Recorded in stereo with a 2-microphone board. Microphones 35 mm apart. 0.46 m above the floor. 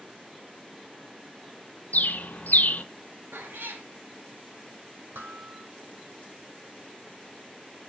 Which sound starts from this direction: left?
A bird, at 1.9 s.